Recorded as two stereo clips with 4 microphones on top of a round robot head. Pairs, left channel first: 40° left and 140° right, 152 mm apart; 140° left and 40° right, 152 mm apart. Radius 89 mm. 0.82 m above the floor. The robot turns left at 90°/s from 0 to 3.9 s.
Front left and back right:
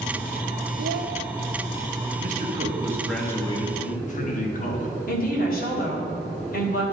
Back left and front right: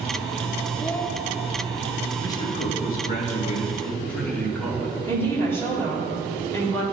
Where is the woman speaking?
65° left, 2.5 m.